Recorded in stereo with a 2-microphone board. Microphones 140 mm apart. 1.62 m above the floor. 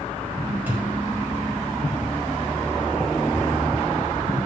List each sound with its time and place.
0.7 s a thud: 15° right (ahead or behind), 4.5 m